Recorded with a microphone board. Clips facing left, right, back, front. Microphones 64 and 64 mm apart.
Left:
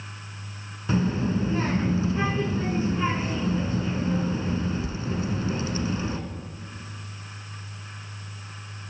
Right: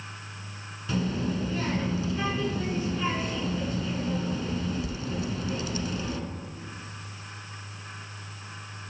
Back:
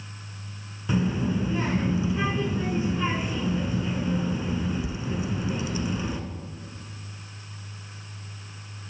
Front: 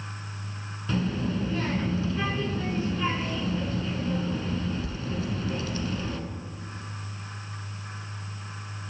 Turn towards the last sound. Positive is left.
turn(degrees=120)